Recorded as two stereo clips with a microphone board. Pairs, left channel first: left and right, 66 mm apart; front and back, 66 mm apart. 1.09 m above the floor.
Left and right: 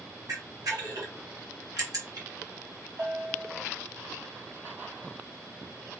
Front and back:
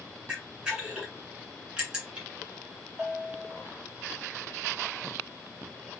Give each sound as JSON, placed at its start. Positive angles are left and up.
{"t": 0.3, "sound": "a camera shutter", "azimuth_deg": -105, "distance_m": 2.0}
{"t": 3.0, "sound": "a bell", "azimuth_deg": -105, "distance_m": 1.8}